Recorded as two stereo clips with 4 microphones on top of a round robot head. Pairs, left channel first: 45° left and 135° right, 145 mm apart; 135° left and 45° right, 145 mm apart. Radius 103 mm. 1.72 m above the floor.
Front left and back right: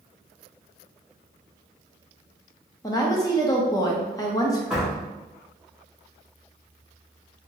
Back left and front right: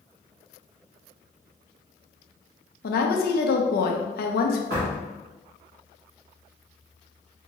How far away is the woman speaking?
About 0.7 m.